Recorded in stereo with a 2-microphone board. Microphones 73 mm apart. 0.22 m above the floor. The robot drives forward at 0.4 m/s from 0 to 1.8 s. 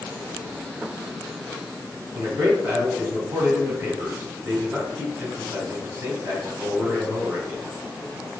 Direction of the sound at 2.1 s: 25° right (ahead or behind).